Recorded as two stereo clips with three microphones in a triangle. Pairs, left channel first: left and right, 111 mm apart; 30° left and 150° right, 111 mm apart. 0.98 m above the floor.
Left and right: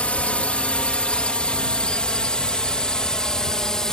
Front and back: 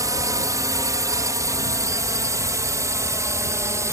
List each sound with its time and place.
0.0 s a drone: 165° left; by 3.9 s 170° left